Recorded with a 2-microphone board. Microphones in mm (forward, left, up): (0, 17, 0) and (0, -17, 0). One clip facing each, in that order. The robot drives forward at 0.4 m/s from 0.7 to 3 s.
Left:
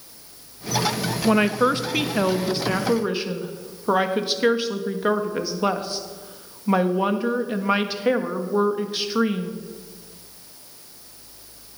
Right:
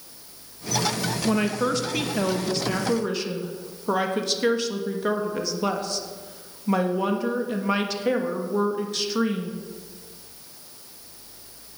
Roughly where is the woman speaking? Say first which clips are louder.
Left 5 dB; left.